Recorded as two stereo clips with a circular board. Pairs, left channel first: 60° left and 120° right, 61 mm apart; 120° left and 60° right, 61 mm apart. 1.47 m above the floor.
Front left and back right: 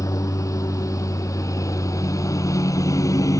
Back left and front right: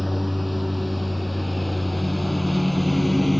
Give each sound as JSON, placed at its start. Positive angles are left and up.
{"t": 0.0, "sound": "a lawn mower", "azimuth_deg": 30}